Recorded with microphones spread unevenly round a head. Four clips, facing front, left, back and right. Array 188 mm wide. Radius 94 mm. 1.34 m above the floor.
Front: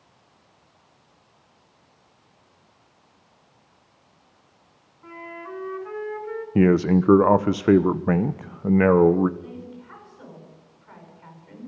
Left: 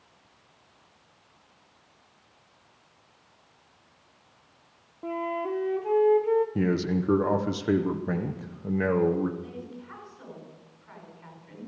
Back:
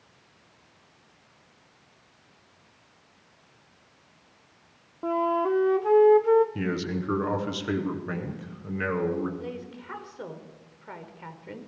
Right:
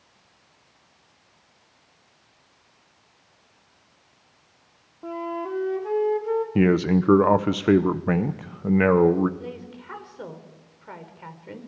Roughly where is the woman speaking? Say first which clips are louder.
Right 3 dB, back 1 dB; behind right.